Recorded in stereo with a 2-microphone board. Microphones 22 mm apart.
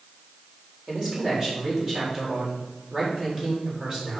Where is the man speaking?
25° right (ahead or behind), 3.5 m.